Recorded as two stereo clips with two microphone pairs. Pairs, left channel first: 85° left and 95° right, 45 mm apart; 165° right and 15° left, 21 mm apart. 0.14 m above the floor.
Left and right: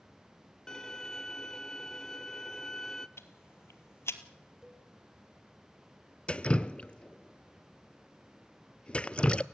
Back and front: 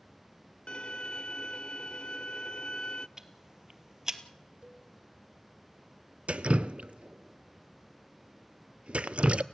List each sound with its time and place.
0.7 s a violin: 165° left, 0.6 m
3.2 s ticking: 75° left, 1.6 m
4.6 s a cowbell: 15° right, 2.5 m
6.3 s dripping: 20° left, 0.6 m